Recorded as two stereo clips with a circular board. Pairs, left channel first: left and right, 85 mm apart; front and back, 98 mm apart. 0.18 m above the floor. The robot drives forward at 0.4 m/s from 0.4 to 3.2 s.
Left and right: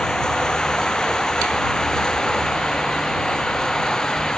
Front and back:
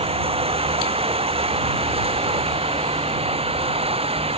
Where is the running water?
170° left.